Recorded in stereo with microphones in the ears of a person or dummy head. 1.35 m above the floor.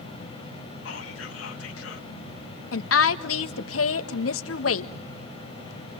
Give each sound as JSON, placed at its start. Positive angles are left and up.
{"t": 0.8, "sound": "whispering", "side_deg": 90, "distance_m": 1.4}
{"t": 2.7, "sound": "a woman speaking", "side_deg": 90, "distance_m": 1.3}